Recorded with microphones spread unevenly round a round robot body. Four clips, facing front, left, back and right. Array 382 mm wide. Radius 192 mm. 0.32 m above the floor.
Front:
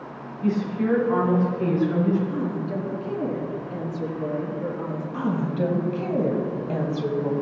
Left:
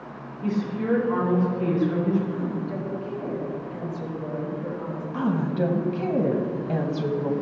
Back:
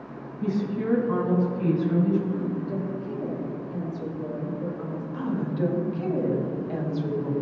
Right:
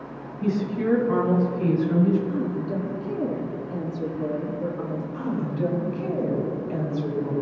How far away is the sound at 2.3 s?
About 3.5 m.